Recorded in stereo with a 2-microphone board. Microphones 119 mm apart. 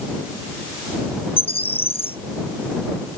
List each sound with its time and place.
1.4 s a bird: 50° left (ahead or behind)